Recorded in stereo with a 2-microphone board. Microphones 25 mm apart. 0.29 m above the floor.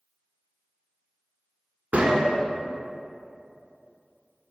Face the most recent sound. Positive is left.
turn(degrees=-55)  # may be behind; listen again after turning